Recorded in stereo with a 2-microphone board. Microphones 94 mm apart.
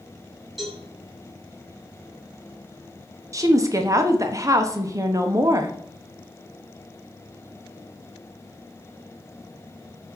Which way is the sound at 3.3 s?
35° right (ahead or behind).